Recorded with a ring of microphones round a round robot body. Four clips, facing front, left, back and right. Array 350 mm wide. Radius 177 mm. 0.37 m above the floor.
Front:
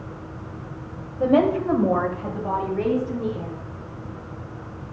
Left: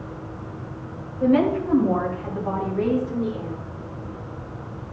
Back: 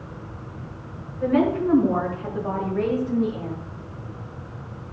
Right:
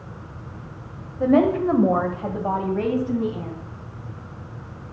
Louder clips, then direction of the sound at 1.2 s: Right 2 dB, front 2 dB; 35° right.